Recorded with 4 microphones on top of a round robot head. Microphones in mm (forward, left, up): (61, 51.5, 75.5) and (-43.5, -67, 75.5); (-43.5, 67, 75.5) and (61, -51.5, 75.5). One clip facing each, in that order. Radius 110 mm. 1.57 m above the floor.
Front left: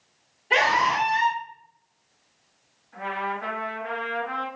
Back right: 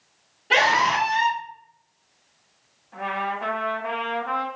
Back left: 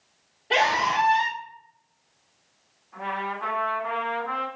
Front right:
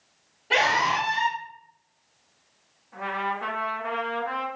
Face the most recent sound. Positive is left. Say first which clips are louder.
# back right 2 dB, front right 1 dB
turn(degrees=-100)